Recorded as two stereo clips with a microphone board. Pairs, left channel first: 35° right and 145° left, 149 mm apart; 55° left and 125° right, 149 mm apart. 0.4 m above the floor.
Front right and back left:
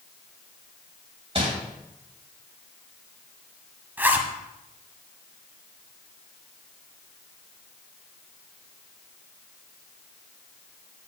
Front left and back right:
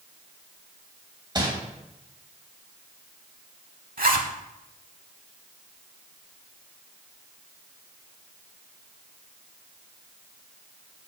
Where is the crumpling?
175° right, 2.5 m.